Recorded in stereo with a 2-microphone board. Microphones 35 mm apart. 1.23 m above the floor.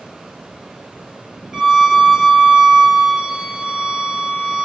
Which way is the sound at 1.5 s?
20° right (ahead or behind).